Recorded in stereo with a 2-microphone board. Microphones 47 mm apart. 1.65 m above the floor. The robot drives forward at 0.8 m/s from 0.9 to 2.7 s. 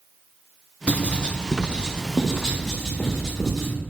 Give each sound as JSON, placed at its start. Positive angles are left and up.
{"t": 0.9, "sound": "writing", "side_deg": 30, "distance_m": 0.8}